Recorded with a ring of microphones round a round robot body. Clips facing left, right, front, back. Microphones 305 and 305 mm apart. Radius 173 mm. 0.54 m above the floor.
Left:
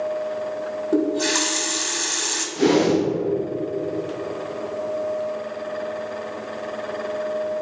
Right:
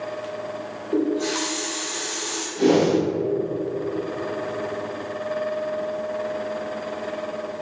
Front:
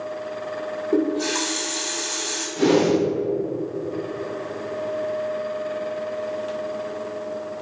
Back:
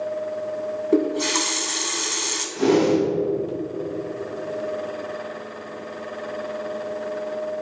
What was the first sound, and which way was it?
A running tap, 125° left.